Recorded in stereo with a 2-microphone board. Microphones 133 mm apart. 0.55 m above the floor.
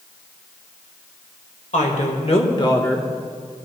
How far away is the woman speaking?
About 1.7 m.